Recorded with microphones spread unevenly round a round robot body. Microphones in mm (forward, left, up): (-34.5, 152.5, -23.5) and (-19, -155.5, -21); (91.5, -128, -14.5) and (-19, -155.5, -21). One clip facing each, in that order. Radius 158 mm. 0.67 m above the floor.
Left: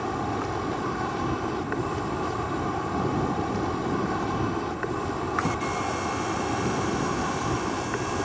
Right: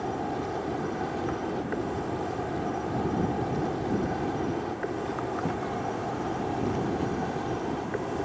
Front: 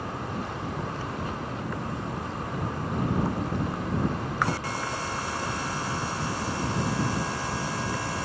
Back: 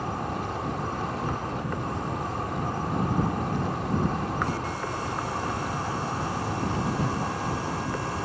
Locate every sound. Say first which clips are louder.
0.0 s an insect: left 2 dB, back 2 dB; 155° left